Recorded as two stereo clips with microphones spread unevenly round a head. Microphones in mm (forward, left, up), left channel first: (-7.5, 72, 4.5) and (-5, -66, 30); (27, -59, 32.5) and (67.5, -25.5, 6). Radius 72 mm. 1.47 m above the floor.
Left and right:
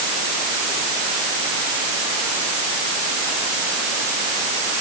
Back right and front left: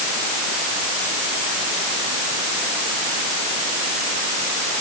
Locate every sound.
Only background noise.